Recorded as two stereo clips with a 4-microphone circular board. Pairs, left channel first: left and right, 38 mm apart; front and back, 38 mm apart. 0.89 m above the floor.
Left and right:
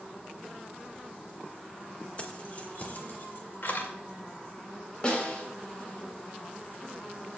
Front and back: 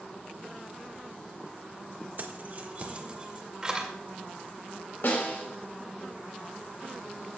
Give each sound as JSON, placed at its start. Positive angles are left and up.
{"t": 2.2, "sound": "keys jangling", "azimuth_deg": 145, "distance_m": 1.4}
{"t": 5.0, "sound": "a snare drum", "azimuth_deg": 25, "distance_m": 3.0}